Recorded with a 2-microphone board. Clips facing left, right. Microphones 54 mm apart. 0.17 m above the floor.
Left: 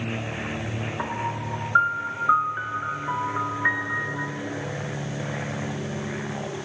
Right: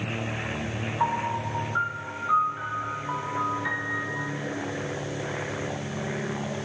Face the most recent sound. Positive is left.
turn(degrees=45)  # may be behind; listen again after turning